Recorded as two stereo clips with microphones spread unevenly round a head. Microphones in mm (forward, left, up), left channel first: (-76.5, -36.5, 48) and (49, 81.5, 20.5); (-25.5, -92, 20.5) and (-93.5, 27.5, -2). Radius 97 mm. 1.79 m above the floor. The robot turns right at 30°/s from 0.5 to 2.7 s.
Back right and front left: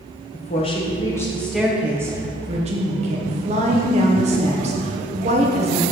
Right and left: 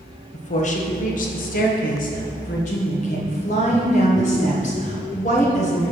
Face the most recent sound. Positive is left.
turn(degrees=-15)